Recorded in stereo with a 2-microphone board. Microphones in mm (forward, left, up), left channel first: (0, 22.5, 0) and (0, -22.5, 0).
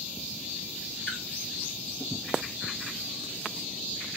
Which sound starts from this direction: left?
A splash, at 1.1 s.